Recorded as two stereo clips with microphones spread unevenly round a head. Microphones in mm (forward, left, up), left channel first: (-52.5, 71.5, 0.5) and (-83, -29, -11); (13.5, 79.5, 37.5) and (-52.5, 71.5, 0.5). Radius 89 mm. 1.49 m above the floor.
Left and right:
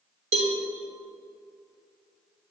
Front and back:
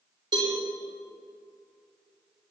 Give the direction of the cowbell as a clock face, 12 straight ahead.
4 o'clock.